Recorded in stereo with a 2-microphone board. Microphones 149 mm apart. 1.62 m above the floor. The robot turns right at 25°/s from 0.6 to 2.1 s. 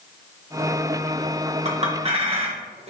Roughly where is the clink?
Right.